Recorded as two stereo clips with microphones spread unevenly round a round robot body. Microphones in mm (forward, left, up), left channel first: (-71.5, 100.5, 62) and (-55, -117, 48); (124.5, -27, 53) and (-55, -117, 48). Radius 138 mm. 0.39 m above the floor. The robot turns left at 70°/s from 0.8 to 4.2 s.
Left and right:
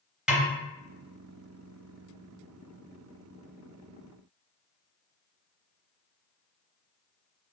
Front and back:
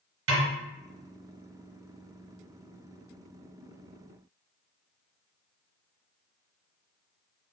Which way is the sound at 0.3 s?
170° right.